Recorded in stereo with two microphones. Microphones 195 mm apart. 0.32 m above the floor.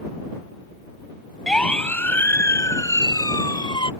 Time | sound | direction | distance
1.5 | a siren | 5° left (ahead or behind) | ?